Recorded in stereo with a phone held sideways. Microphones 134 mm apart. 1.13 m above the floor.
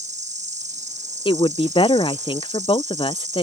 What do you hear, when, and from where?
0.0 s an insect: 65° right (ahead or behind)
1.2 s a woman speaking: 40° left (ahead or behind)